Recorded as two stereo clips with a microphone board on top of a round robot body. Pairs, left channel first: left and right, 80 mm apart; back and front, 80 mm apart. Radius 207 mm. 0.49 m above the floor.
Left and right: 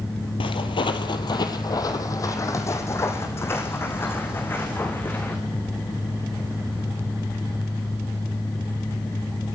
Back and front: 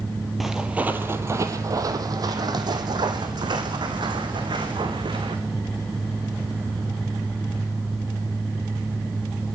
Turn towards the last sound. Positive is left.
turn(degrees=20)